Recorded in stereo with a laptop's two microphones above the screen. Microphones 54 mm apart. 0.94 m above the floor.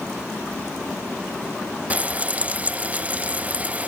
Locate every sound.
1.9 s frying: 25° right (ahead or behind), 0.7 m